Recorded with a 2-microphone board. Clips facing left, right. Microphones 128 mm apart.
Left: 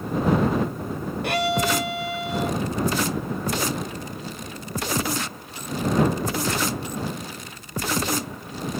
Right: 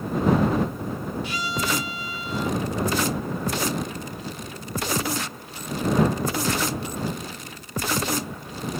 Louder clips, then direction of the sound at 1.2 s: Left 9 dB; 65° left (ahead or behind).